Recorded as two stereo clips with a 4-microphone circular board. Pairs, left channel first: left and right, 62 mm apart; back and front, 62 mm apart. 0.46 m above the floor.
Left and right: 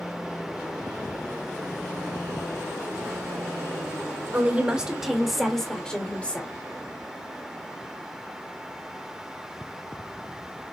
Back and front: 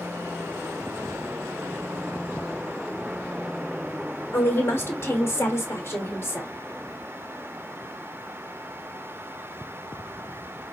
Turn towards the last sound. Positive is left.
turn(degrees=145)